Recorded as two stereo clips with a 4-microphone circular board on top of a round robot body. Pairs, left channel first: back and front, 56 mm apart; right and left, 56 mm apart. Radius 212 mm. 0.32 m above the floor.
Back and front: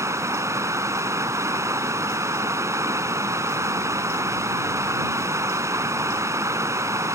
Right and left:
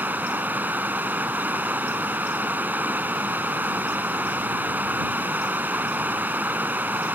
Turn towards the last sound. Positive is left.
turn(degrees=30)